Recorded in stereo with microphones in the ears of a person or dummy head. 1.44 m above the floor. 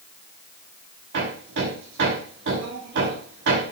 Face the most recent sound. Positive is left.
turn(degrees=-70)  # may be behind; listen again after turning